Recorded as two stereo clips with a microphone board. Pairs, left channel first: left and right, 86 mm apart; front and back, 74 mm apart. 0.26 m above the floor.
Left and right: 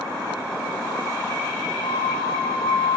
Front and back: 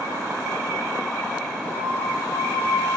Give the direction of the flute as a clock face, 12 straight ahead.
10 o'clock.